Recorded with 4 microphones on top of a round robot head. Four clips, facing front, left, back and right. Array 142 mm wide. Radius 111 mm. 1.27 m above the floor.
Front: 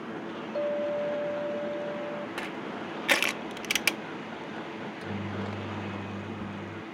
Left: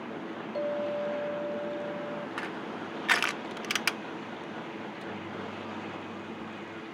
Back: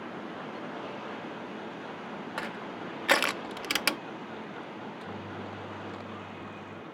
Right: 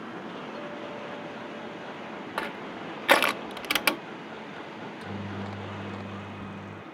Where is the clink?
30° left.